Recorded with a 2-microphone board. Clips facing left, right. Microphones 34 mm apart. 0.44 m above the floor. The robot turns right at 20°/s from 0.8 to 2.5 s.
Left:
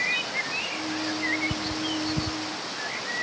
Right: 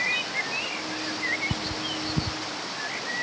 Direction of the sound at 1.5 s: 45° right (ahead or behind).